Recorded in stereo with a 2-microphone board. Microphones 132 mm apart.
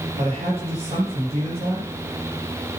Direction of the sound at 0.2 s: 50° right (ahead or behind).